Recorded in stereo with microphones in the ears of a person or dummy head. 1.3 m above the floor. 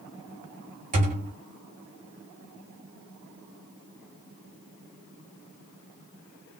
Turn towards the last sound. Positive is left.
turn(degrees=-35)  # may be behind; listen again after turning